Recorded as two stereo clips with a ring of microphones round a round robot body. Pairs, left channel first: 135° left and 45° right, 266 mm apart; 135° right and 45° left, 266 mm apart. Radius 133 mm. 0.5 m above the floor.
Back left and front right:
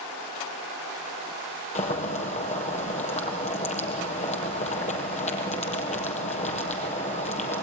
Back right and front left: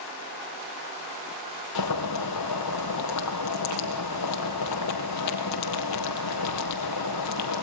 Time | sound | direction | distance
1.8 | boiling | 160° right | 3.5 m